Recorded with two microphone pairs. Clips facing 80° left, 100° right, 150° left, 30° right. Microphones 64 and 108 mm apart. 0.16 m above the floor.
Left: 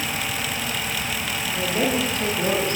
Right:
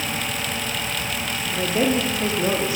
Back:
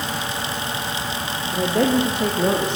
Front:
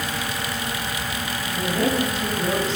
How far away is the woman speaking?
About 7.5 m.